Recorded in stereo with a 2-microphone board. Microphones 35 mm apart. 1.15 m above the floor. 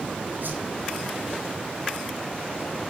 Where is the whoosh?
65° right (ahead or behind), 6.5 m.